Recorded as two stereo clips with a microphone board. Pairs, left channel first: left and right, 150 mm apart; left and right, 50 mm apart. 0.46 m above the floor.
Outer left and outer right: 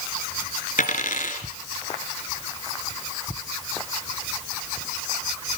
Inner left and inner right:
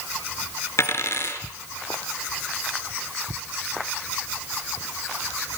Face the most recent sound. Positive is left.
turn(degrees=60)  # may be behind; listen again after turning